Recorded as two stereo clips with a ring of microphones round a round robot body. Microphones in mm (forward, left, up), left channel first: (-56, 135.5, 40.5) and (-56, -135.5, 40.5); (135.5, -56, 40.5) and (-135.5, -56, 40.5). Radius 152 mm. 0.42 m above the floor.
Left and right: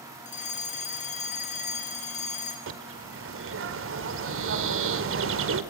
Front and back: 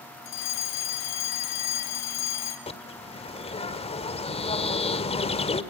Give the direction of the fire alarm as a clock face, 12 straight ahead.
11 o'clock.